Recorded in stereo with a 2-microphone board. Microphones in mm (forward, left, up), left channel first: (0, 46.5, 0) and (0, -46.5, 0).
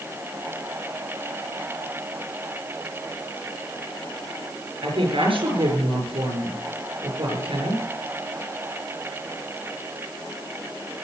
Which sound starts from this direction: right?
A woman speaking, at 4.8 s.